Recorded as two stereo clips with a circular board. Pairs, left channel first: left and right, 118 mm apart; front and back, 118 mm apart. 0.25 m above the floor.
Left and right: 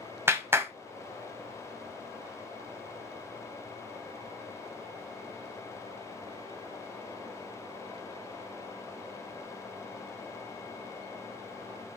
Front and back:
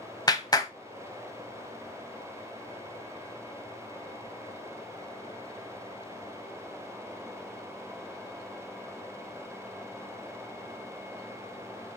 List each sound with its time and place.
0.3 s a clap: 35° right, 1.0 m